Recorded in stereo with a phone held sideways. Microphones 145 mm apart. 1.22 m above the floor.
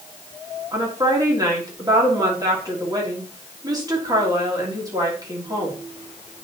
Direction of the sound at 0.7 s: 25° right (ahead or behind).